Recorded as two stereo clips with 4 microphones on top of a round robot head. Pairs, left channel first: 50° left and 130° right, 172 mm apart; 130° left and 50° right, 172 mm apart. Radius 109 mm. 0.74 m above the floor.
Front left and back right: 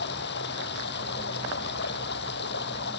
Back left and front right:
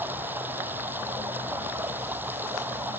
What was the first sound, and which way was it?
Running water, 30° left.